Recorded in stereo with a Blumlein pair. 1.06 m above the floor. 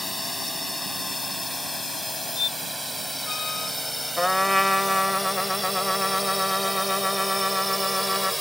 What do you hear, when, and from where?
0.0 s a drone: 5° left; by 8.4 s straight ahead
2.4 s a squeak: 20° left
4.2 s a trumpet: straight ahead